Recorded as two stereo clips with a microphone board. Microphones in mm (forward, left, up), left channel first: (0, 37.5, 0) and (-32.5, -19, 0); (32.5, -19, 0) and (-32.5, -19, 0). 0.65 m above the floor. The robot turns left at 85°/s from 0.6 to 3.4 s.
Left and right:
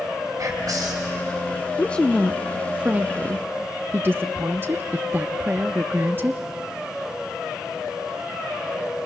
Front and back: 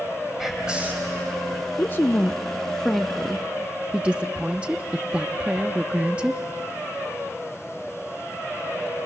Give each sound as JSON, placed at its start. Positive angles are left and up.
{"t": 0.4, "sound": "whispering", "azimuth_deg": -95, "distance_m": 4.0}
{"t": 1.8, "sound": "a woman speaking", "azimuth_deg": 20, "distance_m": 0.6}